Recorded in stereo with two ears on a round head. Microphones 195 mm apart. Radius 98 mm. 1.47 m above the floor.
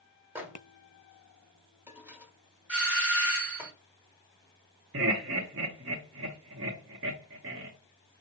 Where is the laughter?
55° right (ahead or behind), 0.8 m.